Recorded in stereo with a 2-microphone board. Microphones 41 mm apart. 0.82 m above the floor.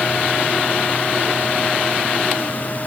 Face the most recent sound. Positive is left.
No sound to turn to.